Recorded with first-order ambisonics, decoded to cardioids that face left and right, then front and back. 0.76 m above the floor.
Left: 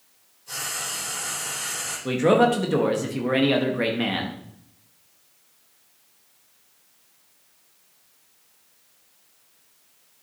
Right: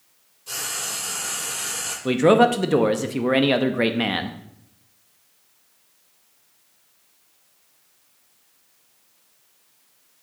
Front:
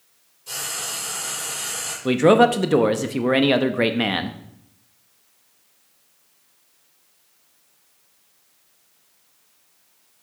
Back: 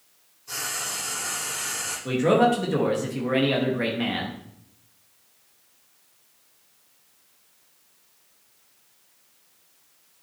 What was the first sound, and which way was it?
Frying, 40° right.